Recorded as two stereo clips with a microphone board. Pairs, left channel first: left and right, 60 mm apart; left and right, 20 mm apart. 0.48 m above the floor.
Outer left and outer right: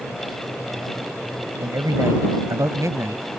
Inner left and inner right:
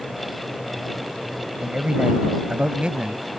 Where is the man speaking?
65° right (ahead or behind); by 3.2 s 55° right (ahead or behind).